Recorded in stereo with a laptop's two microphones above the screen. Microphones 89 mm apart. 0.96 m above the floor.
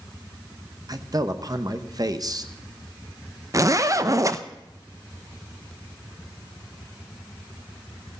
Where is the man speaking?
45° right (ahead or behind), 0.9 m.